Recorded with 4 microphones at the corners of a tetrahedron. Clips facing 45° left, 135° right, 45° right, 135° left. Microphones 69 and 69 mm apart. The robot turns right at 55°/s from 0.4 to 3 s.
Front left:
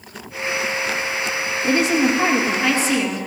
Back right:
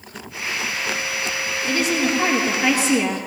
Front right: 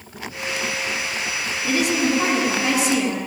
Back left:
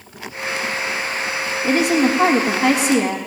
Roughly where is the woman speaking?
Left.